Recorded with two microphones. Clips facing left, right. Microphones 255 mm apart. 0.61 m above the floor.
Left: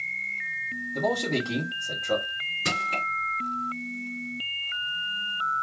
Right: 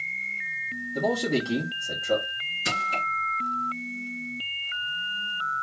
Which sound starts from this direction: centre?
A man speaking, at 0.9 s.